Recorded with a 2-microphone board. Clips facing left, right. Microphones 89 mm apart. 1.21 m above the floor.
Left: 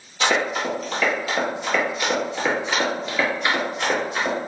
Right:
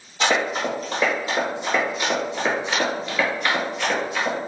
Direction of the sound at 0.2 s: 40° right (ahead or behind).